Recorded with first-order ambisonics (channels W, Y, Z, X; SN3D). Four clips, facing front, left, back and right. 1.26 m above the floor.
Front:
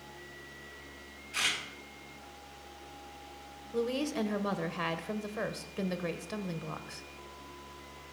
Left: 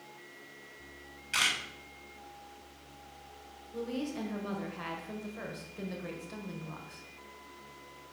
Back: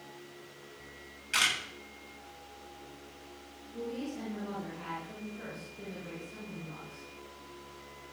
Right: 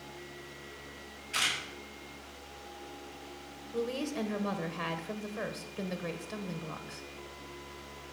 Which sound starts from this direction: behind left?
A camera shutter, at 1.3 s.